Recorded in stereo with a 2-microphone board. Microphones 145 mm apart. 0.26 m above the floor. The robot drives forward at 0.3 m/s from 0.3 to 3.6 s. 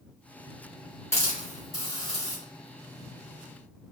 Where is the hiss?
20° left (ahead or behind), 1.4 m.